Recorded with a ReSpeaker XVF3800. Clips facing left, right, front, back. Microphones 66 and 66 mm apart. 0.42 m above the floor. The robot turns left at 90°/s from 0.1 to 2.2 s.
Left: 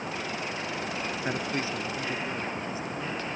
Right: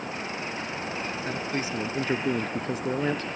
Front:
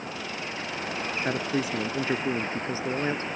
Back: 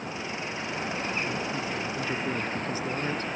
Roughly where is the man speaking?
Ahead.